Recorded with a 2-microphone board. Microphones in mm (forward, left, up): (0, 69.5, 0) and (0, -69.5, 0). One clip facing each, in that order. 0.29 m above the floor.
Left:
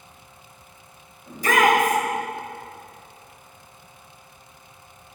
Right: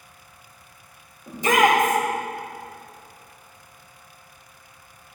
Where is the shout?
25° right (ahead or behind), 1.5 m.